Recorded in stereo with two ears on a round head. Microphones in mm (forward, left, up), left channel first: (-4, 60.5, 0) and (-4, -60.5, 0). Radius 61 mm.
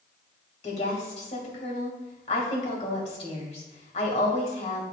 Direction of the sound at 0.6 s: 50° left (ahead or behind).